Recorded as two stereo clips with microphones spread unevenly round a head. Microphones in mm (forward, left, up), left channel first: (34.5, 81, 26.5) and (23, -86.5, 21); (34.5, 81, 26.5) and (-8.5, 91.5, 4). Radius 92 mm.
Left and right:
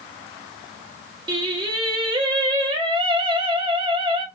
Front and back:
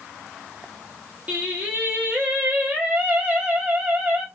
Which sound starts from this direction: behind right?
Singing, at 1.3 s.